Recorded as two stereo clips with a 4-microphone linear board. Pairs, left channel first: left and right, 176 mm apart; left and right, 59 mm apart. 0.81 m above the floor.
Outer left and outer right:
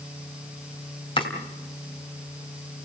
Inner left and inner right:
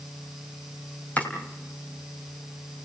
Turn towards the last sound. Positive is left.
turn(degrees=30)  # may be behind; listen again after turning